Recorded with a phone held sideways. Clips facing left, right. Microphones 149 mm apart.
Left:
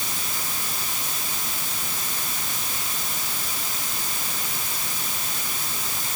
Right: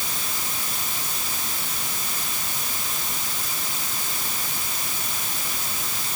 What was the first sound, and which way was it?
Only background noise.